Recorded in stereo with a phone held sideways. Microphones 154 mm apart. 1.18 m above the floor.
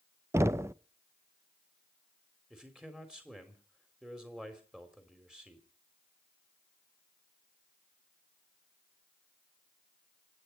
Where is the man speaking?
5° right (ahead or behind), 3.5 m.